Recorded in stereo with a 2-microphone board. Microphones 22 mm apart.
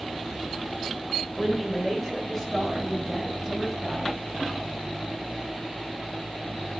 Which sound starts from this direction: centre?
A man speaking, at 1.4 s.